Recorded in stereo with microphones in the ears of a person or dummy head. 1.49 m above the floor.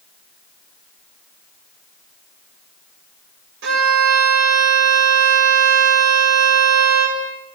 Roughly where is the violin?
Right.